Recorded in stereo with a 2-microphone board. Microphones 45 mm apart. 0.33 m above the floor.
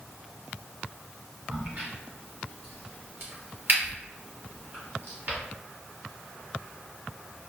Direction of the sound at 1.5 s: 55° right (ahead or behind).